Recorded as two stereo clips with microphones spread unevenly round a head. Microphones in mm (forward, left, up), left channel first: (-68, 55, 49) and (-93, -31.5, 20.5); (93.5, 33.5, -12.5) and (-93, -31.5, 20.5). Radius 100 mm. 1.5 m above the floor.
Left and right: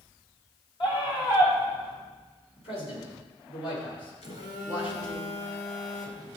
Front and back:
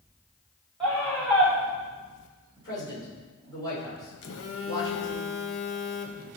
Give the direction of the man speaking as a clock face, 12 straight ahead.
9 o'clock.